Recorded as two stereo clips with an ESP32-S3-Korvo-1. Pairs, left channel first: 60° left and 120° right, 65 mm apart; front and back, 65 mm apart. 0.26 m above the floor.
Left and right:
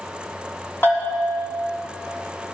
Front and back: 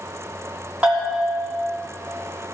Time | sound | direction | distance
0.8 | a bell | 110° left | 3 m